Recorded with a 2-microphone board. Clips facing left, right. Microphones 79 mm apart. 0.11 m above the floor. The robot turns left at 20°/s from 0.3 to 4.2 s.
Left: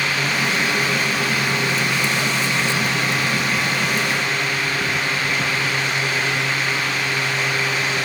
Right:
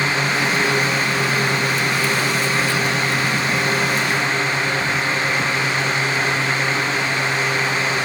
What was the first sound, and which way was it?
Only background noise.